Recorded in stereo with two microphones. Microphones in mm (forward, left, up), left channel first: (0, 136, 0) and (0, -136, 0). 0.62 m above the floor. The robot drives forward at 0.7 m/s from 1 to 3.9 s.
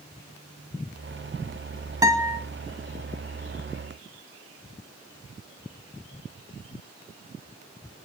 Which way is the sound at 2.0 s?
15° right (ahead or behind).